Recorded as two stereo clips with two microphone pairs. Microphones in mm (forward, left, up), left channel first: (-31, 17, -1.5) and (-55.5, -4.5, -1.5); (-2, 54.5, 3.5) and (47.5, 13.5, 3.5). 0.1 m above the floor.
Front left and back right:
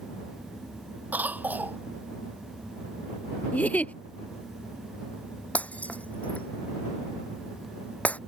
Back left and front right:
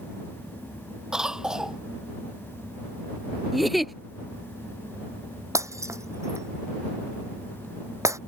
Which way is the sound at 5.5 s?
5° right.